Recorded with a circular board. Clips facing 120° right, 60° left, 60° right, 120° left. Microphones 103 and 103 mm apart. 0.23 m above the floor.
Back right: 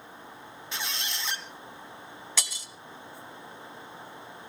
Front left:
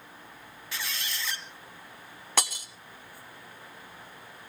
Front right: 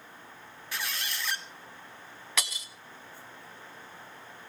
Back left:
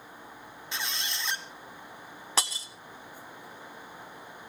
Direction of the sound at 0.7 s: Straight behind.